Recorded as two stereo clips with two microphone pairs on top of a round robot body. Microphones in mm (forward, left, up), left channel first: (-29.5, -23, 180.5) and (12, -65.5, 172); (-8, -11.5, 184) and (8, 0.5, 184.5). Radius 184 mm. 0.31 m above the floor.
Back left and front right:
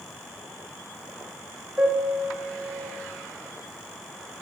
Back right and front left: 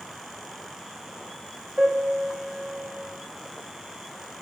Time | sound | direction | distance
1.8 | a piano | 5° left | 3.5 m